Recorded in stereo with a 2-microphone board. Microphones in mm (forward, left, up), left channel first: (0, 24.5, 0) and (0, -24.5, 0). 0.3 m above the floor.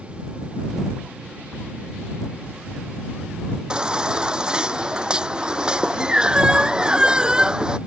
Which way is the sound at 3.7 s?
15° right (ahead or behind).